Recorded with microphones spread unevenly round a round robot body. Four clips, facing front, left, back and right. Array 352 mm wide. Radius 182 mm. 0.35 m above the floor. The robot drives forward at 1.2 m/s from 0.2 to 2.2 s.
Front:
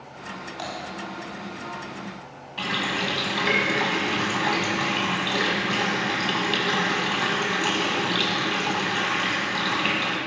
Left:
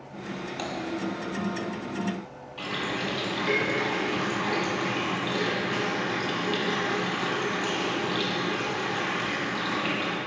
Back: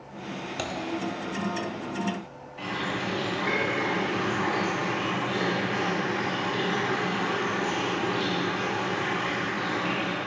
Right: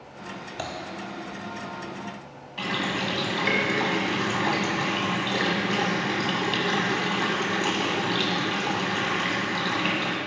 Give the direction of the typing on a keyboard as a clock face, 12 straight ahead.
5 o'clock.